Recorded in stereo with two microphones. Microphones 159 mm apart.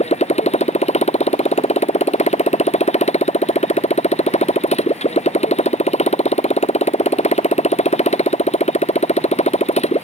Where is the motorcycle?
45° left (ahead or behind).